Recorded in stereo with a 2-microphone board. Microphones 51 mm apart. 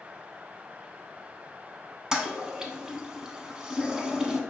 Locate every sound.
2.1 s a toilet flushing: 15° right (ahead or behind), 0.5 m